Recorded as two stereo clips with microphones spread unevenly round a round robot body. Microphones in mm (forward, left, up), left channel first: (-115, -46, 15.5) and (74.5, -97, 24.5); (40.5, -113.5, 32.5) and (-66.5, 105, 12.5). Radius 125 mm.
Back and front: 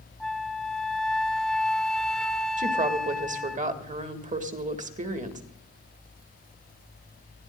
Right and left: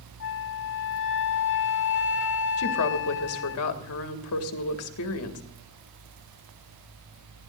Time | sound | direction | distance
0.2 | a flute | 110° right | 1.2 m
2.6 | a woman speaking | 60° right | 1.7 m